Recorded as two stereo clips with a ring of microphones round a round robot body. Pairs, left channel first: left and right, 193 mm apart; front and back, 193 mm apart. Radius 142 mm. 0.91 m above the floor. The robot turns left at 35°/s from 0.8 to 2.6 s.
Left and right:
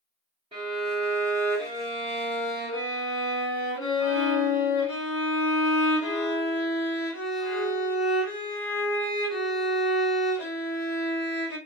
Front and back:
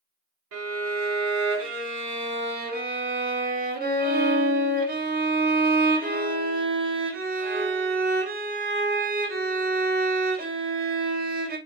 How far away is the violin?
About 0.9 m.